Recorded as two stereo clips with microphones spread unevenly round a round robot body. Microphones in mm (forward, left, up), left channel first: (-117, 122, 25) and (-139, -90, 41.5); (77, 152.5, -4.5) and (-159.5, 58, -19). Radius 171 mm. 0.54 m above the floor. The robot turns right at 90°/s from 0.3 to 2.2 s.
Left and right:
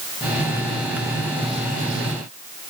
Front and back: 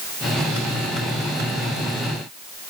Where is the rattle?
I don't hear a rattle.